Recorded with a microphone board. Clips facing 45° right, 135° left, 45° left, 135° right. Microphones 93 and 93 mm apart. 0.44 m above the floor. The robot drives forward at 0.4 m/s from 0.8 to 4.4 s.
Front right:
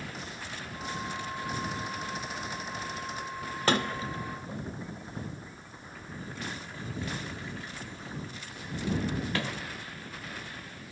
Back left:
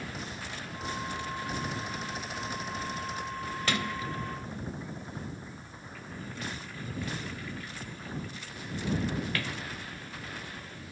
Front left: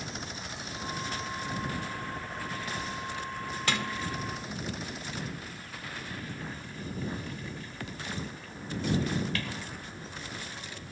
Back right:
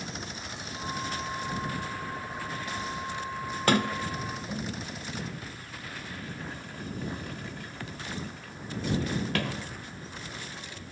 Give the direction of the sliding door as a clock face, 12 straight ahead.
3 o'clock.